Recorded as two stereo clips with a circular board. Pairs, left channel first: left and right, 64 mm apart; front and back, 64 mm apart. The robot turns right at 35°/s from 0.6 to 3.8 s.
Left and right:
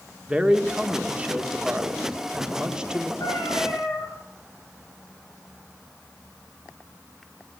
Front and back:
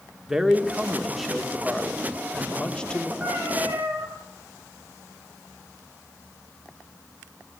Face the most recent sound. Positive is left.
turn(degrees=115)